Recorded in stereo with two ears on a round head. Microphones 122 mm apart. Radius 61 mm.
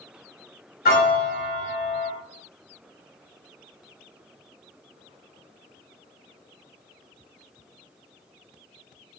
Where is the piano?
75° left (ahead or behind), 1.2 m.